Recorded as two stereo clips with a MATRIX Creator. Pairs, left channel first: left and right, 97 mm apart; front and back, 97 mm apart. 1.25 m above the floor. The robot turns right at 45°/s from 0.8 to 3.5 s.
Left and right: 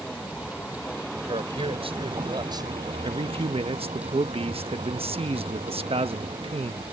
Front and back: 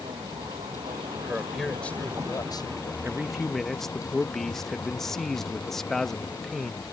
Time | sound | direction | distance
0.0 | a vehicle | 170° left | ?
1.2 | a man speaking | 105° right | ?
3.0 | a man speaking | 105° right | ?